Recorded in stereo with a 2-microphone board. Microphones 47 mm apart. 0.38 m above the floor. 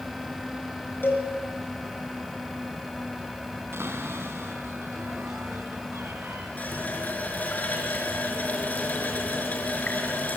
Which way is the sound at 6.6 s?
35° left (ahead or behind).